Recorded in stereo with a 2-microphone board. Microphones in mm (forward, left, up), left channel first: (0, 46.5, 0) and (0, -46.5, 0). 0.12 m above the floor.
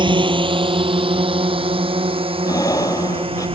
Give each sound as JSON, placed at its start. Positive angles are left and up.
{"t": 0.0, "sound": "a drone", "side_deg": -60}
{"t": 2.4, "sound": "breathing", "side_deg": 40}